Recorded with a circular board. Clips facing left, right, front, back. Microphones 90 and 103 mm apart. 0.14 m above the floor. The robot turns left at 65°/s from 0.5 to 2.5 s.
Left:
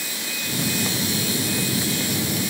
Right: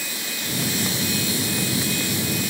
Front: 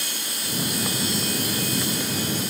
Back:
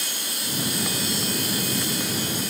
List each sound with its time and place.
Only background noise.